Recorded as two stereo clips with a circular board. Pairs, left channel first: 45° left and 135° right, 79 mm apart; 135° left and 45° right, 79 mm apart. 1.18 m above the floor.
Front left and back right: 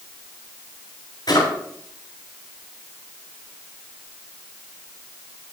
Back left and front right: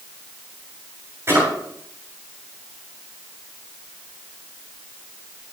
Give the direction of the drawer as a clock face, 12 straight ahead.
12 o'clock.